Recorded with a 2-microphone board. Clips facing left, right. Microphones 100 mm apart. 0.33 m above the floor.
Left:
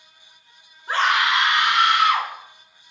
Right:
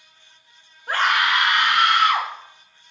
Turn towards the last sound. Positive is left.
turn(degrees=-50)  # may be behind; listen again after turning